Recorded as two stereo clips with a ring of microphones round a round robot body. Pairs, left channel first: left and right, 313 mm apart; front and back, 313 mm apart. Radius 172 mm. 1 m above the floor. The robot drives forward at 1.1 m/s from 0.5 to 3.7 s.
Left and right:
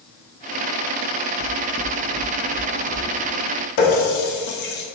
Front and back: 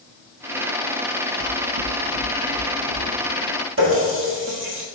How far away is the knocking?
About 0.9 m.